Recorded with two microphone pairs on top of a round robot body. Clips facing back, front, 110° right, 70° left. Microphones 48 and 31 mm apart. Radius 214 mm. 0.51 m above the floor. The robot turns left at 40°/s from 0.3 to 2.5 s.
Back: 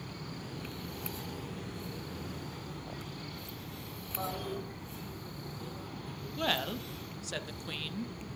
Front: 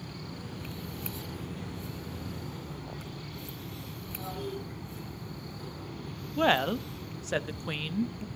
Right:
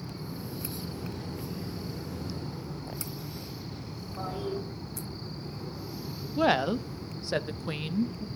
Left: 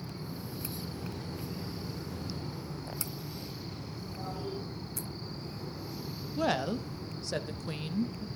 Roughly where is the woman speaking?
Ahead right.